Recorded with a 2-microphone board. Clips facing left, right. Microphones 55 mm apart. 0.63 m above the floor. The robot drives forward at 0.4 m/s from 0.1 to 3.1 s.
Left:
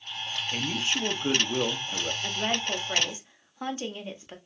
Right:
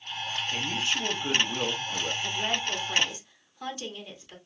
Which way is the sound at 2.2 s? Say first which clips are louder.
Left 2 dB; 25° left (ahead or behind).